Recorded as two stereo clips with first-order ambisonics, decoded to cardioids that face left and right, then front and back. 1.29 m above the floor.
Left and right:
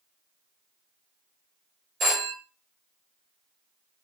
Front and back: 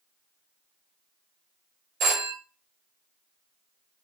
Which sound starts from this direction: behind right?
A phone ringing, at 2.0 s.